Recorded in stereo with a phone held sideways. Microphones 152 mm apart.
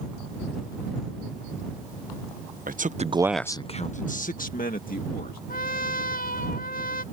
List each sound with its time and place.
2.7 s a man speaking: 65° right (ahead or behind); by 5.4 s 75° left (ahead or behind)
5.5 s a trumpet: 75° left (ahead or behind)